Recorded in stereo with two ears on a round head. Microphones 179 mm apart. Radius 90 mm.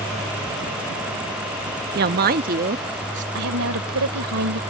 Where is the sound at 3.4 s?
85° right.